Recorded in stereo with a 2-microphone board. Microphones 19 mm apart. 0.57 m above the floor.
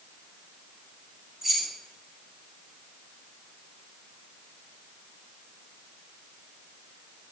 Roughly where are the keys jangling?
Centre.